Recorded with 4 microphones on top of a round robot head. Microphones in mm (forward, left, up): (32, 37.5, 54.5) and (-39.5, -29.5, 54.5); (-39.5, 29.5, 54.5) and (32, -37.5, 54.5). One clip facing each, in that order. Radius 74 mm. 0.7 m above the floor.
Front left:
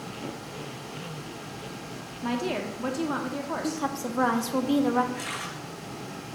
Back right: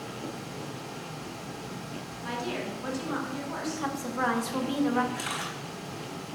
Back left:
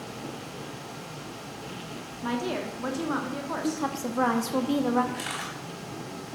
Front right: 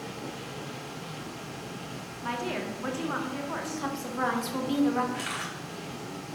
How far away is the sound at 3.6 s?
About 1.1 m.